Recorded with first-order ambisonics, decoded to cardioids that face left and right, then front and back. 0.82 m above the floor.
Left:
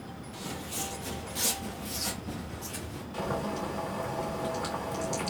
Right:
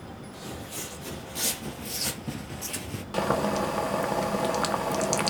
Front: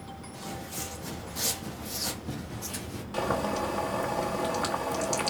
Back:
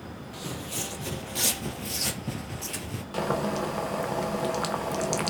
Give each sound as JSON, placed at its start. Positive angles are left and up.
{"t": 0.3, "sound": "footsteps", "azimuth_deg": 170, "distance_m": 1.7}
{"t": 3.1, "sound": "boiling", "azimuth_deg": -105, "distance_m": 0.8}